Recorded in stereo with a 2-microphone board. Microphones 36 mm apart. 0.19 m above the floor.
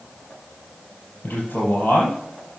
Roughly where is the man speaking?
Left.